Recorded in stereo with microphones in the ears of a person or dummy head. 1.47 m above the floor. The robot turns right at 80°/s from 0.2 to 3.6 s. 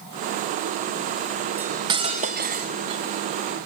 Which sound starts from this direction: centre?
Cutlery clinking, at 1.6 s.